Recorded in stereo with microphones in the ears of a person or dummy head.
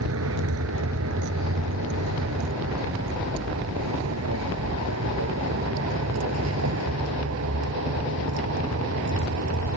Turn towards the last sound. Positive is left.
turn(degrees=-75)  # may be behind; listen again after turning